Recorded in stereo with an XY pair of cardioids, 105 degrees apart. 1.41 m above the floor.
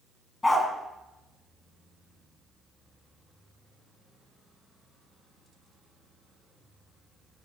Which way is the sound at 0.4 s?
20° left.